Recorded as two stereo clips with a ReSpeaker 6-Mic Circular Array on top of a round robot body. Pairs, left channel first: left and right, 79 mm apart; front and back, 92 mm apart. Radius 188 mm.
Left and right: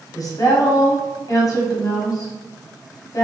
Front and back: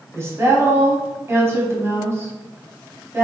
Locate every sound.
0.1 s a woman speaking: 120° left, 1.5 m